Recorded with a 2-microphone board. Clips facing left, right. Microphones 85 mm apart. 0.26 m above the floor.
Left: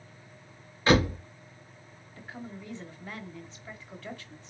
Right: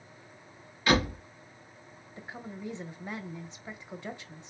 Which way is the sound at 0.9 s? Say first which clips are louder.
Left 3 dB; 30° left (ahead or behind).